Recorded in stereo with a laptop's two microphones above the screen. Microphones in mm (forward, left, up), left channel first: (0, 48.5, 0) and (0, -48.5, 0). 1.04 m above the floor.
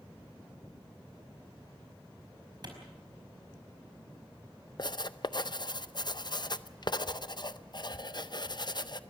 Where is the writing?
50° left (ahead or behind), 0.5 m.